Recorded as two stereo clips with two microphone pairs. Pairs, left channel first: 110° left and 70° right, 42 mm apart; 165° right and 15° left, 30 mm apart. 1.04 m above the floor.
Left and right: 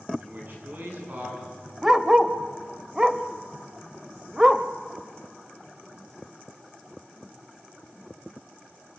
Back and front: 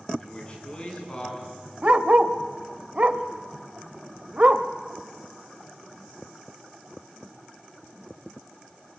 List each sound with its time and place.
0.2 s a man speaking: 110° right, 9.5 m; by 1.4 s 105° right, 11 m
1.8 s a dog barking: straight ahead, 0.9 m